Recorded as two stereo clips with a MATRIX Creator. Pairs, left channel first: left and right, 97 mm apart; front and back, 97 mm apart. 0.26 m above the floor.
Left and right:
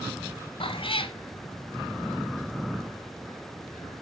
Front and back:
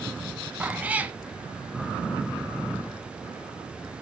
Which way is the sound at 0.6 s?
105° left.